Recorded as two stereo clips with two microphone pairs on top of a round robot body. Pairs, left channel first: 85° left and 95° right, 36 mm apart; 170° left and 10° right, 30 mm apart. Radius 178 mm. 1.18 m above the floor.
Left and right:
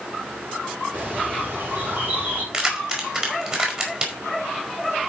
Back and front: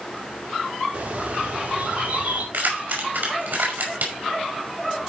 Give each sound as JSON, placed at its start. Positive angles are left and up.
{"t": 0.9, "sound": "a bird", "azimuth_deg": -60, "distance_m": 6.5}
{"t": 2.5, "sound": "keys jangling", "azimuth_deg": -35, "distance_m": 5.0}